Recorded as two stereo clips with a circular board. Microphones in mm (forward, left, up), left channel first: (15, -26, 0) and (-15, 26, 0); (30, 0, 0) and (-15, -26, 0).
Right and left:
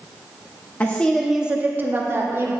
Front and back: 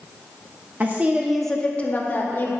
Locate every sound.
0.8 s a woman speaking: 115° right, 0.7 m; by 2.5 s 75° left, 1.2 m